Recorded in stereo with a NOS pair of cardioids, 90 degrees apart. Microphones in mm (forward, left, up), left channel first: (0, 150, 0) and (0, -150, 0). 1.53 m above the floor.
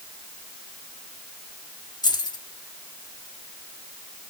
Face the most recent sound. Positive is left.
turn(degrees=15)